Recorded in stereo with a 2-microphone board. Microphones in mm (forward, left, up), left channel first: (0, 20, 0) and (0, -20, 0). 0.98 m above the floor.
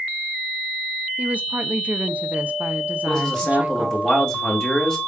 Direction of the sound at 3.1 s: 20° left (ahead or behind).